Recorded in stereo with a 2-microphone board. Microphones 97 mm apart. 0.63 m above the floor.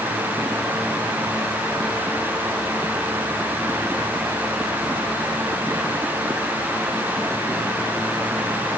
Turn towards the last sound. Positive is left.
No sound to turn to.